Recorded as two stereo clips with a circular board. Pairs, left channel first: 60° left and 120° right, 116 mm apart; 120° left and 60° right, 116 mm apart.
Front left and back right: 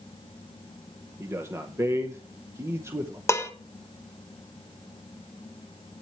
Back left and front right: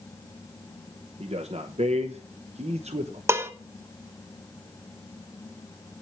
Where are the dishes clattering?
Straight ahead, 0.9 m.